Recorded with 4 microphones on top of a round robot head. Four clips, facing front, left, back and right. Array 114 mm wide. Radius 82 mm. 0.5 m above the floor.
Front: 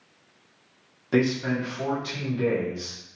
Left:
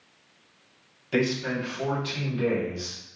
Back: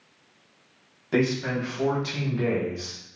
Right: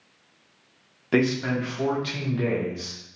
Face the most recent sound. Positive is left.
turn(degrees=-145)